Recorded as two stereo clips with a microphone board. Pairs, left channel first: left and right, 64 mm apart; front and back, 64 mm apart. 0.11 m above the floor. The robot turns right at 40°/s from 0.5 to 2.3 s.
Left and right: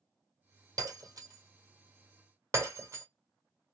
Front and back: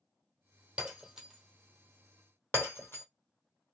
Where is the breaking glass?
110° right, 1.5 m; by 3.0 s 50° right, 1.5 m.